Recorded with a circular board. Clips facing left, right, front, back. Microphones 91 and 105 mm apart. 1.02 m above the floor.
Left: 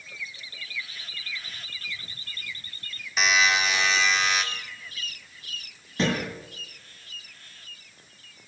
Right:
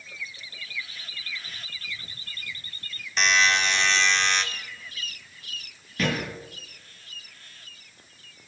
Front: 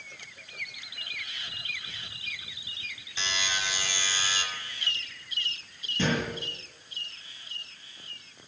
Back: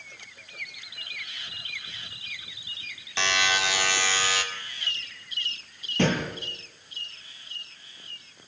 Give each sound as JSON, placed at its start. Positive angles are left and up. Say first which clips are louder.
{"t": 3.2, "sound": "a buzzer", "louder": "even, back 8 dB", "azimuth_deg": 175, "distance_m": 1.9}
{"t": 6.0, "sound": "a thud", "louder": "left 1 dB, back 3 dB", "azimuth_deg": 155, "distance_m": 9.0}